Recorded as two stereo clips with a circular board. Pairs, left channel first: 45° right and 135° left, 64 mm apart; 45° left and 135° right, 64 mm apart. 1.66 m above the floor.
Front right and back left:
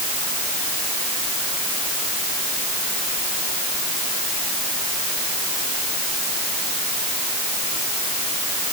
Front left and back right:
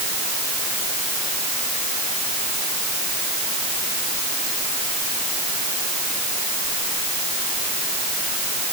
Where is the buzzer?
I don't hear a buzzer.